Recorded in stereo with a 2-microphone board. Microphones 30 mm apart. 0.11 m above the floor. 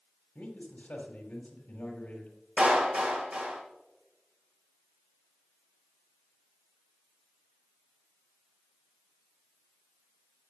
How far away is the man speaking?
About 3.5 m.